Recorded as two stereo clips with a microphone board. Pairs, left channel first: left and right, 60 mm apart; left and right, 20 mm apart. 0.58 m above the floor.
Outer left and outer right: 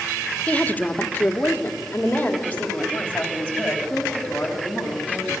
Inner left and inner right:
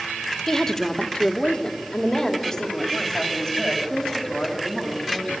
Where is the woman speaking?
20° left (ahead or behind), 1.0 m.